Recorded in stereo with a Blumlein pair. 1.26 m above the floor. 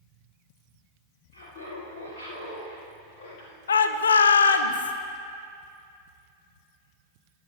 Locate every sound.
1.3 s laughter: 65° left, 3 m; by 3.6 s 45° left, 1.8 m
3.7 s a shout: 70° left, 0.7 m